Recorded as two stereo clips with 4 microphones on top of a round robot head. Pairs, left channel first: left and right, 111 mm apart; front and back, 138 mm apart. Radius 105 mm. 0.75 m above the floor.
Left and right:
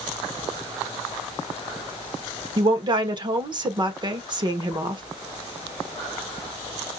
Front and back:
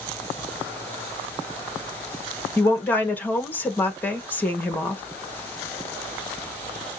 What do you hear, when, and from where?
2.6 s a woman speaking: 75° right, 1.3 m